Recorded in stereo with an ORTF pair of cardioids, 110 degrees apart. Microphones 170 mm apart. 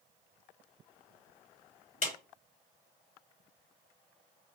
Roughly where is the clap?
Ahead left.